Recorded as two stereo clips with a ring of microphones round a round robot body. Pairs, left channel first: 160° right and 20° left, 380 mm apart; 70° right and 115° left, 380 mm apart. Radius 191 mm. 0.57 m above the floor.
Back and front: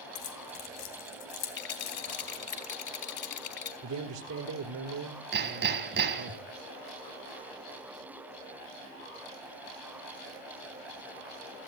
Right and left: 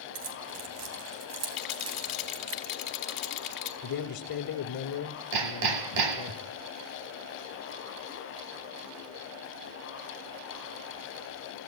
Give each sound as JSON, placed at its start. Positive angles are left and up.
{"t": 0.1, "sound": "keys jangling", "azimuth_deg": 165, "distance_m": 3.0}
{"t": 1.6, "sound": "a rattle", "azimuth_deg": -105, "distance_m": 3.0}
{"t": 3.8, "sound": "a man speaking", "azimuth_deg": -25, "distance_m": 1.5}
{"t": 5.3, "sound": "hammering", "azimuth_deg": 85, "distance_m": 2.5}